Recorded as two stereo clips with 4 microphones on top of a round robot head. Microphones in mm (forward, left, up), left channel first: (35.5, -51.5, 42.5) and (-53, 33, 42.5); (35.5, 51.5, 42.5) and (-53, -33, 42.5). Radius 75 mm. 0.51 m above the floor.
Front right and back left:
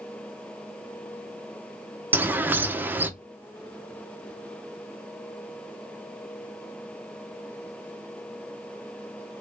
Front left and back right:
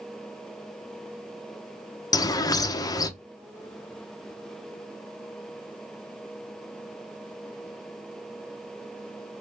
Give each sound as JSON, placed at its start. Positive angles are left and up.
{"t": 2.1, "sound": "a bird", "azimuth_deg": 75, "distance_m": 0.6}